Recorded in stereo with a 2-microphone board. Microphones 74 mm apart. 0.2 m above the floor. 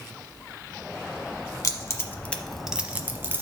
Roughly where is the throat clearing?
No throat clearing in this recording.